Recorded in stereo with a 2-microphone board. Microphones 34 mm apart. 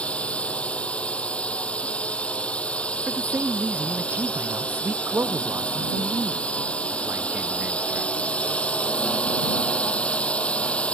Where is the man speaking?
80° right.